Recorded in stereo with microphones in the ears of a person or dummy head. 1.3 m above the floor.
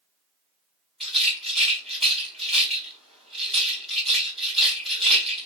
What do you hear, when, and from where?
1.0 s a rattle: centre (ahead or behind), 1.5 m